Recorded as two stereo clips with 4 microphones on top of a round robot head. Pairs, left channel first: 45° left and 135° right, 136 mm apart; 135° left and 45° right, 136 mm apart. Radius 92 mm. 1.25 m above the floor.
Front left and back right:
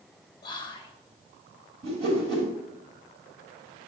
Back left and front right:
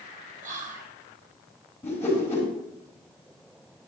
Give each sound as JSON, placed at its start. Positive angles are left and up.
{"t": 0.4, "sound": "whispering", "azimuth_deg": -15, "distance_m": 1.2}
{"t": 1.8, "sound": "a whoosh", "azimuth_deg": -150, "distance_m": 3.5}